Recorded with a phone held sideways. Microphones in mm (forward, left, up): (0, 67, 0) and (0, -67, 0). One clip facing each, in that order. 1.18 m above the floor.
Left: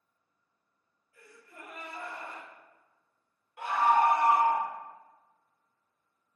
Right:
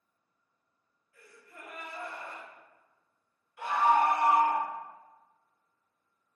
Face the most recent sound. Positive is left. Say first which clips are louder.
# even
turn(degrees=50)  # may be behind; listen again after turning